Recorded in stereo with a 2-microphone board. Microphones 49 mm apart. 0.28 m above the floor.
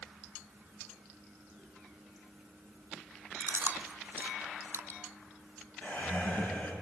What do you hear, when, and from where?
3.4 s chewing: 55° right (ahead or behind), 0.5 m
5.8 s laughter: 35° left (ahead or behind), 4 m